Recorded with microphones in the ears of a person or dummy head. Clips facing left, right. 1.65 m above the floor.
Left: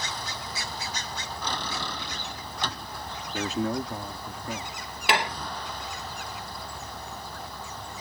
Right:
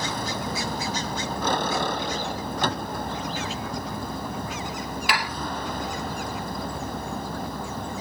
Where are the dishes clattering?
20° left (ahead or behind).